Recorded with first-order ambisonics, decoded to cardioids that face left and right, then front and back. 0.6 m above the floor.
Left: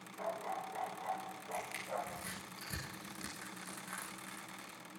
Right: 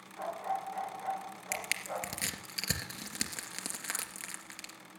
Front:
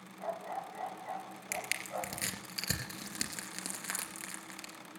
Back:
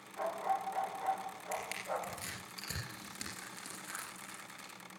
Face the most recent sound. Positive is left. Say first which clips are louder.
# right 5 dB, front 2 dB
turn(degrees=-60)